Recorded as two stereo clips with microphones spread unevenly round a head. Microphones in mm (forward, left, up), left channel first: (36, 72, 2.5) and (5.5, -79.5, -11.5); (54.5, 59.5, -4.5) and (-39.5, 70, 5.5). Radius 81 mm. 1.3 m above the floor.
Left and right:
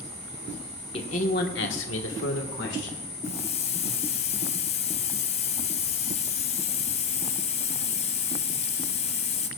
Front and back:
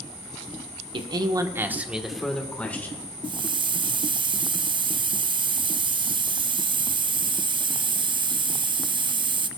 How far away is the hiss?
About 0.5 m.